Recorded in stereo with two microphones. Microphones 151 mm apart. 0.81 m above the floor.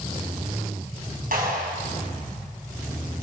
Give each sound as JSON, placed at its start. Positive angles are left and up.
{"t": 1.3, "sound": "a clap", "side_deg": -70, "distance_m": 5.5}